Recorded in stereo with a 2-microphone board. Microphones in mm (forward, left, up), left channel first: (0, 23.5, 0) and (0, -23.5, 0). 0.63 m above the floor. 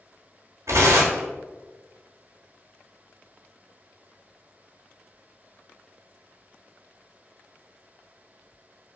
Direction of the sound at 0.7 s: 75° right (ahead or behind).